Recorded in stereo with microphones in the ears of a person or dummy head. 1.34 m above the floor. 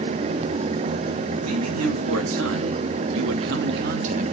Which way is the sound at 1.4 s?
90° right.